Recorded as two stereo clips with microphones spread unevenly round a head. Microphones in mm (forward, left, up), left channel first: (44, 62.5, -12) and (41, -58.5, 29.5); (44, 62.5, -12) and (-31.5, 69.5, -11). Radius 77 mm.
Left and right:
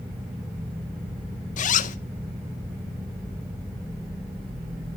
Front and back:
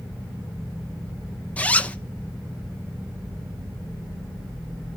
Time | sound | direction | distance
1.6 | a zipper | 65° left | 0.7 m